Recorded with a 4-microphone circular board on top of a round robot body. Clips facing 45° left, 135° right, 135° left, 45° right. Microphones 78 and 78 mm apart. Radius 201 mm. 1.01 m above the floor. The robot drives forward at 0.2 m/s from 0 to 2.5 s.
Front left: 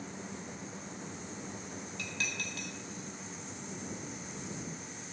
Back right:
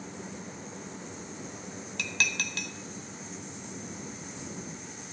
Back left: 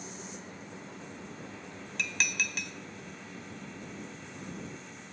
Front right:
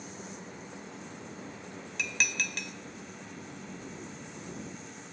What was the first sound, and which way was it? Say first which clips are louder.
Dishes clattering: back right 8 dB, even; 135° right.